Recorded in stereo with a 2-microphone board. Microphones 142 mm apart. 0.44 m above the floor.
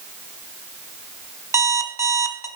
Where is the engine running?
I don't hear an engine running.